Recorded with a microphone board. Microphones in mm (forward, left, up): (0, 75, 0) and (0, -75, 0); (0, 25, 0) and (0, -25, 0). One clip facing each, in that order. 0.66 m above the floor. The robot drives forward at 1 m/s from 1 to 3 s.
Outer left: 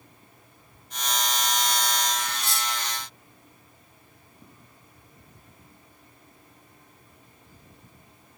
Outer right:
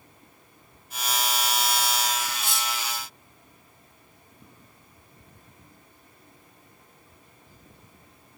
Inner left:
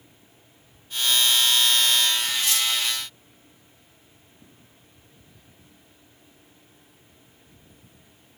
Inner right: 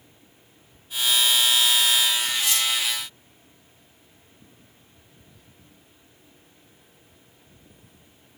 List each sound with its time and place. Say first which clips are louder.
2.3 s cutlery clinking: even, even; 45° left (ahead or behind), 3 m; by 2.7 s 40° left (ahead or behind), 3 m